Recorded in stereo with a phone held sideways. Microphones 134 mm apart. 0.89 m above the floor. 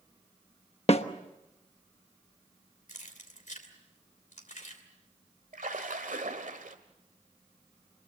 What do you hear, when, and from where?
0.9 s a snare drum: 50° left (ahead or behind), 1.1 m
2.9 s keys jangling: 65° left (ahead or behind), 2.5 m
5.5 s a splash: 80° right, 1.6 m